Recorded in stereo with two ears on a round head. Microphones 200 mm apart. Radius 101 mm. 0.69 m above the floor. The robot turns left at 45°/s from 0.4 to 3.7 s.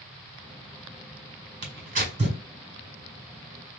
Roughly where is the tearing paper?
Right.